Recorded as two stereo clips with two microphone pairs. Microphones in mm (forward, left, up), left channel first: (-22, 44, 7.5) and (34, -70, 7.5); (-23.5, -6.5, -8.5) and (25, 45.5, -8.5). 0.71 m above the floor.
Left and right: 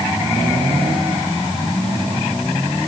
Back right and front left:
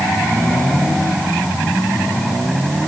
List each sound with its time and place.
Only background noise.